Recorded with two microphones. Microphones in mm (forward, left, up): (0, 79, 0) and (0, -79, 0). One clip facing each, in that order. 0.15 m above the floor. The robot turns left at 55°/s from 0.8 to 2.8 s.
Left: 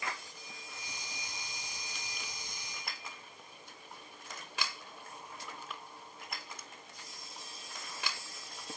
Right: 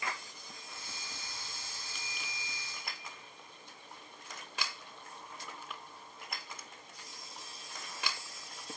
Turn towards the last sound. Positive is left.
turn(degrees=170)